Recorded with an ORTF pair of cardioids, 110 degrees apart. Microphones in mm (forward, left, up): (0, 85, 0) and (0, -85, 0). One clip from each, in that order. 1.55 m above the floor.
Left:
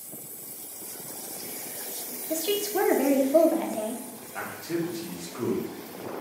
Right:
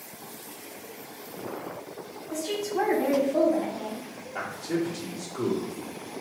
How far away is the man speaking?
About 1.3 m.